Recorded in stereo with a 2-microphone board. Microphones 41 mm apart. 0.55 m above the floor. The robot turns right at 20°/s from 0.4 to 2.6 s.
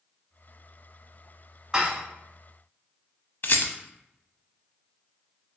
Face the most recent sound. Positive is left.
turn(degrees=55)  # may be behind; listen again after turning